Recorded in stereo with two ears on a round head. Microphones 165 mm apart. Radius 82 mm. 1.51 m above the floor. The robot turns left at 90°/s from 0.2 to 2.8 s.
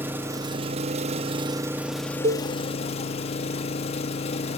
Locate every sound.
0.0 s an engine running: 20° right, 1.0 m; by 4.6 s 105° left, 1.0 m
2.2 s a cowbell: 35° right (ahead or behind), 1.0 m; by 2.5 s 20° right (ahead or behind), 1.0 m